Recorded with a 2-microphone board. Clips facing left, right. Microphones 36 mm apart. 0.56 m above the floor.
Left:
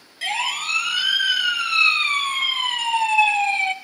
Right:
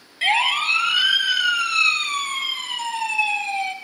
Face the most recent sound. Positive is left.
turn(degrees=60)  # may be behind; listen again after turning